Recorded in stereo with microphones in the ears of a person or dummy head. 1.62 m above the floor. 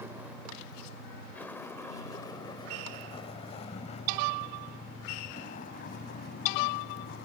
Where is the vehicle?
10° right (ahead or behind); by 7.2 s 50° left (ahead or behind).